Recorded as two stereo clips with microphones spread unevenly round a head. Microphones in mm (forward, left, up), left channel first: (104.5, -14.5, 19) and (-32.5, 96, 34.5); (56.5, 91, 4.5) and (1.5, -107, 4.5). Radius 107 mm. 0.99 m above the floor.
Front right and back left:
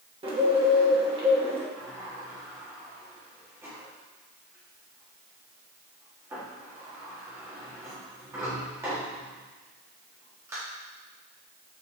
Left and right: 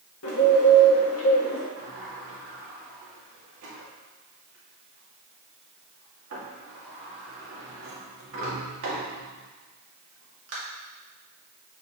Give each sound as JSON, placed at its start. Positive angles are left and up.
{"t": 0.2, "sound": "a bird", "azimuth_deg": 80, "distance_m": 1.9}
{"t": 1.8, "sound": "a sliding door", "azimuth_deg": -140, "distance_m": 1.9}